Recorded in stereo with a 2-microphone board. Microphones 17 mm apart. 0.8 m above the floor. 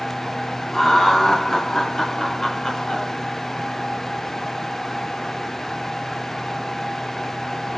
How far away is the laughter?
About 2 m.